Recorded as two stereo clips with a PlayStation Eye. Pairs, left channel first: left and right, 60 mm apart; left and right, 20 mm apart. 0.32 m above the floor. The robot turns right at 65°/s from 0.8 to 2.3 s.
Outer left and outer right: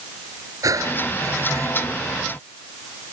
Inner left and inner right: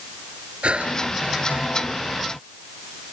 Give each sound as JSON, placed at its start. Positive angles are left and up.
{"t": 0.6, "sound": "breathing", "azimuth_deg": -105}